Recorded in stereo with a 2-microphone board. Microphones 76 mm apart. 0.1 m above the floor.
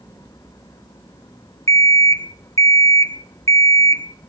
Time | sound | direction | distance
1.7 | an alarm clock | 45° left (ahead or behind) | 1.1 m